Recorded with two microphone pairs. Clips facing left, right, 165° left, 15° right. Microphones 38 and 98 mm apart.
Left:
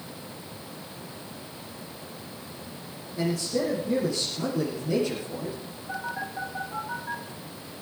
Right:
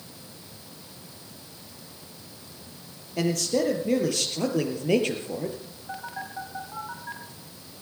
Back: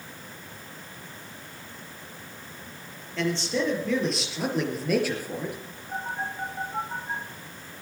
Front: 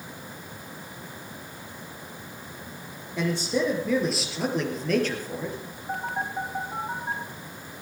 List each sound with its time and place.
3.2 s a man speaking: 95° right, 4.5 m; by 5.6 s 120° right, 3.5 m
5.9 s a phone buzzing: 10° right, 2.5 m